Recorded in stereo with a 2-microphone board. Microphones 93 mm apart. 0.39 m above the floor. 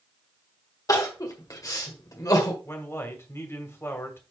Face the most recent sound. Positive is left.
turn(degrees=30)  # may be behind; listen again after turning